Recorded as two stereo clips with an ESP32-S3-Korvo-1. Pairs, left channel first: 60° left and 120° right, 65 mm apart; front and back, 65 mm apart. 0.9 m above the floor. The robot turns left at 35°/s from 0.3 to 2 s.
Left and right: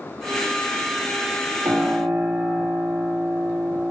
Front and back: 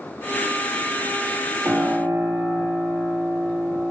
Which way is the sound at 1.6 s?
130° right.